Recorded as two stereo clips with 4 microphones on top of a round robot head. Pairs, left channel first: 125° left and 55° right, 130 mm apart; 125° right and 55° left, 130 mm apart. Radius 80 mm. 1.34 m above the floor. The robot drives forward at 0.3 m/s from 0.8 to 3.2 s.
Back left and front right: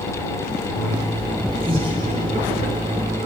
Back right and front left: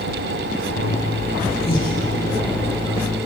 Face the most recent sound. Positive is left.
turn(degrees=-115)